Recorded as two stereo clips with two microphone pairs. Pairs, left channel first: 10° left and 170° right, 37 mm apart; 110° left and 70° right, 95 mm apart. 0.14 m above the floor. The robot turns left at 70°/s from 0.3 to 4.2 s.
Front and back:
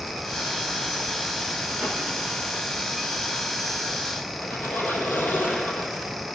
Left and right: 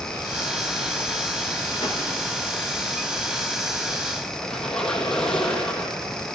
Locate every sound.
1.8 s a whoosh: 135° left, 6.5 m; by 2.0 s 120° left, 6.5 m
4.4 s a squeak: 25° left, 4 m